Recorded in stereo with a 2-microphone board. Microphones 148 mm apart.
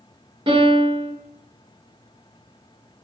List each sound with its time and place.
0.5 s a piano: 35° right (ahead or behind), 1.0 m